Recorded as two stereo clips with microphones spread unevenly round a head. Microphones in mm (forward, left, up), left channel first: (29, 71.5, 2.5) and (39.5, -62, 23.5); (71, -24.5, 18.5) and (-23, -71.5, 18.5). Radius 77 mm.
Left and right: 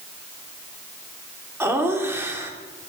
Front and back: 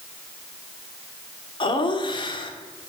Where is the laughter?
10° right, 3 m.